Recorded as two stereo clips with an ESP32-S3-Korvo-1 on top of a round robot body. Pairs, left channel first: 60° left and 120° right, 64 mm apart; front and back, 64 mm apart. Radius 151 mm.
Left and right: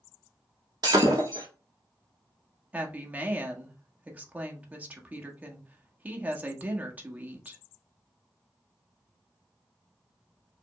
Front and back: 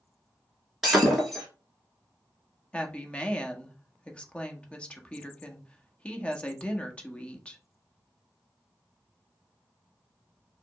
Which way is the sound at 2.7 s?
65° right.